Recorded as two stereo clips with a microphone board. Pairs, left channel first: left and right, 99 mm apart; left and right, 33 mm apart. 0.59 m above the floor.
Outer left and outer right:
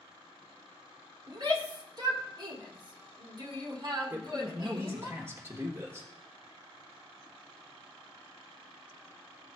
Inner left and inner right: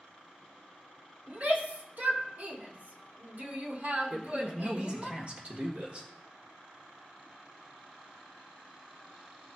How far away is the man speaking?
About 1.4 m.